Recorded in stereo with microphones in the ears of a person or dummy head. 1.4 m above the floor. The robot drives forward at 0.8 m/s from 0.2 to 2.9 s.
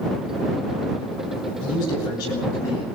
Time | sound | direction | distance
1.6 | a man speaking | 20° left (ahead or behind) | 8.5 m